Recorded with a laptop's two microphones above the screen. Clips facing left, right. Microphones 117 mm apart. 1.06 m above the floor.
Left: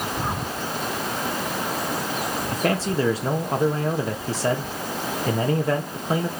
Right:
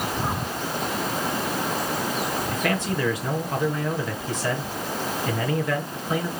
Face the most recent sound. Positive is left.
turn(degrees=35)  # may be behind; listen again after turning